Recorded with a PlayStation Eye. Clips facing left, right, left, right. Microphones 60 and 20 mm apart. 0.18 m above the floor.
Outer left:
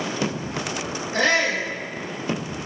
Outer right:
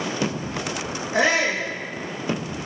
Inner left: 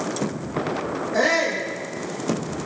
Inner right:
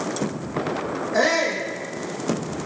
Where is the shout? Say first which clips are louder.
Even, even; 15° right (ahead or behind), 8 m.